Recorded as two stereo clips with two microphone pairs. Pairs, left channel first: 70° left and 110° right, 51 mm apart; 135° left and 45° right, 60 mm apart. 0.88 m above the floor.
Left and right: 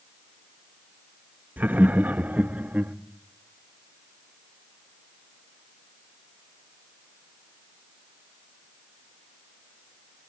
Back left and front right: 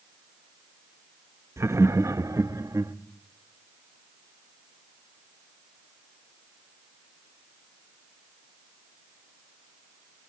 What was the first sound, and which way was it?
Laughter, 60° right.